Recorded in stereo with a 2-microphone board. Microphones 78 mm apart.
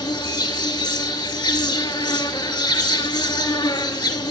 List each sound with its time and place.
0.0 s an insect: 70° left (ahead or behind), 0.7 m